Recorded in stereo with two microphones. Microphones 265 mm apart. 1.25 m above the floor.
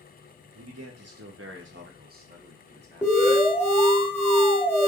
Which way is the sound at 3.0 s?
5° left (ahead or behind).